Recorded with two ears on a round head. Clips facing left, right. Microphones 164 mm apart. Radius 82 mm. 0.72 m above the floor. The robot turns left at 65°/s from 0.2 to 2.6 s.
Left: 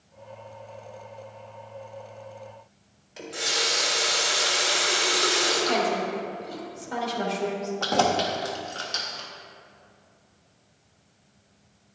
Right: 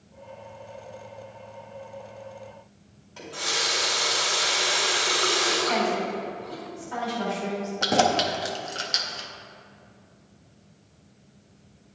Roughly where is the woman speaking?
Left.